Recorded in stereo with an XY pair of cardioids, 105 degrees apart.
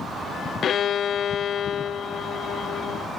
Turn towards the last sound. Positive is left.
turn(degrees=60)